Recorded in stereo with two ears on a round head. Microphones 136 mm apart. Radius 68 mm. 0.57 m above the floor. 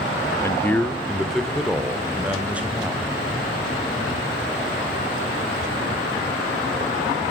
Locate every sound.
0.4 s a man speaking: 20° left (ahead or behind), 0.9 m; by 3.1 s 10° right (ahead or behind), 3 m